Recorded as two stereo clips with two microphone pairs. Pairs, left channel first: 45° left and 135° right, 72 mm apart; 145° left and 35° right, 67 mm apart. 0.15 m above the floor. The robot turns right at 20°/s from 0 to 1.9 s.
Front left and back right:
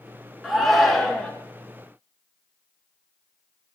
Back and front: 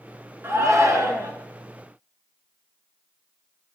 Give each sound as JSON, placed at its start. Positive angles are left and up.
{"t": 0.4, "sound": "a shout", "azimuth_deg": -45, "distance_m": 2.0}